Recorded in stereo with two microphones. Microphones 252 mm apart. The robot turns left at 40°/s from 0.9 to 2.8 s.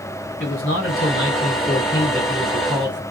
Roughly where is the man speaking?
Ahead left.